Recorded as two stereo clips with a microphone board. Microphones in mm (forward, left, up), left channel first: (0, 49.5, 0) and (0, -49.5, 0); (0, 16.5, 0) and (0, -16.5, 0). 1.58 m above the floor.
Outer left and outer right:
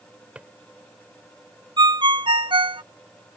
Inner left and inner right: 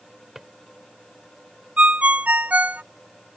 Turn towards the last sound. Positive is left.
turn(degrees=-60)  # may be behind; listen again after turning